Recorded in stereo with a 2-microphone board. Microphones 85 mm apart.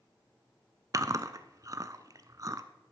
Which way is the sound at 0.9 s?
40° right (ahead or behind).